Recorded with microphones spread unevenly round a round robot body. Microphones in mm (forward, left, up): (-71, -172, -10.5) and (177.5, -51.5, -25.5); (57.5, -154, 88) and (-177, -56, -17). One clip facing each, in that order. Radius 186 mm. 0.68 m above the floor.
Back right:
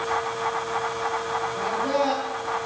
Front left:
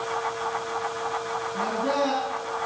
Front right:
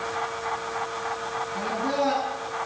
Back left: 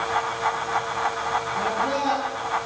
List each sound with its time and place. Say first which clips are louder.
1.5 s a man speaking: even, front right 1 dB; 60° left, 8.5 m